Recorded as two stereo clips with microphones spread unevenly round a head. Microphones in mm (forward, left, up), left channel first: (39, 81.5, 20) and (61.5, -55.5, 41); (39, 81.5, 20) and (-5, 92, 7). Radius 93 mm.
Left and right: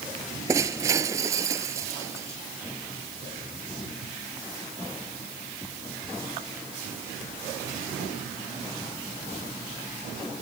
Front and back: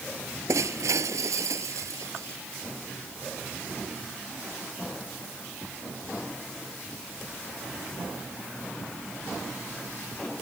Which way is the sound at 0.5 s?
155° right.